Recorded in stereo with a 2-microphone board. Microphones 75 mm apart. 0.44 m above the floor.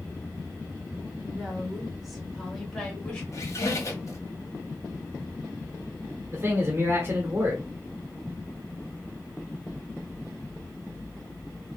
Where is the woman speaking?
15° right (ahead or behind), 1.9 m; by 3.2 s 10° left (ahead or behind), 2.5 m.